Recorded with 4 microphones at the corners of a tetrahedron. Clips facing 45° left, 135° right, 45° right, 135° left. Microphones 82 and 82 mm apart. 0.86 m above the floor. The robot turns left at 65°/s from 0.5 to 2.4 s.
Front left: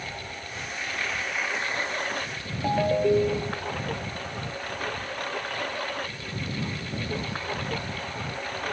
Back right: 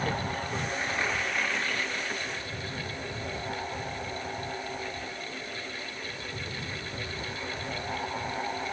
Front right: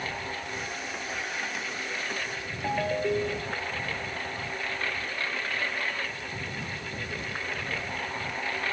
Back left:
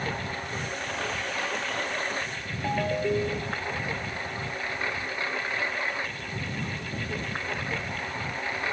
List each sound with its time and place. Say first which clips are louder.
0.0 s a lawn mower: back right 6 dB, back left 2 dB; 175° right; by 8.7 s 65° left
2.6 s a ringtone: front left 15 dB, back left 1 dB; 45° left